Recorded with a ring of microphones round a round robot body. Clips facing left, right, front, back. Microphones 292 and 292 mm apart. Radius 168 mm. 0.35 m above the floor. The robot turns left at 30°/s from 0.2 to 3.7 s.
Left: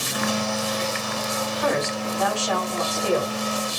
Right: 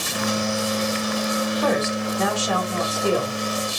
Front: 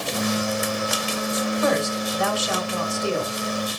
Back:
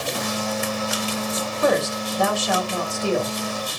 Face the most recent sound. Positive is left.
turn(degrees=165)